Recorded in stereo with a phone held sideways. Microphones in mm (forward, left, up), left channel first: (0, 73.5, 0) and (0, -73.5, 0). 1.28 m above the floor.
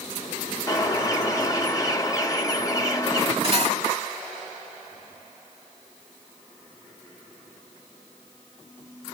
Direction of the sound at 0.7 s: 25° left (ahead or behind).